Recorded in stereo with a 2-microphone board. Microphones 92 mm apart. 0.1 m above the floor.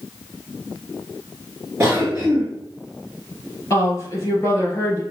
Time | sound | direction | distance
1.8 | a cough | 20° right (ahead or behind) | 1.8 m
3.7 | a woman speaking | 30° left (ahead or behind) | 2 m